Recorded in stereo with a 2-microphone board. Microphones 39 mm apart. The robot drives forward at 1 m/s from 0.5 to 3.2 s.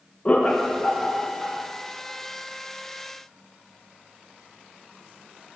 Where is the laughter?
30° left (ahead or behind), 0.5 m; by 1.6 s 10° left (ahead or behind), 1.3 m.